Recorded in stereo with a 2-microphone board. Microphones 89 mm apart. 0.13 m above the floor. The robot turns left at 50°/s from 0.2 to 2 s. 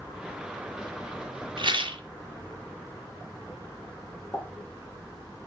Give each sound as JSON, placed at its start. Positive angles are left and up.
{"t": 1.6, "sound": "a rattle", "side_deg": -65, "distance_m": 1.9}
{"t": 4.3, "sound": "a pop", "side_deg": 25, "distance_m": 3.5}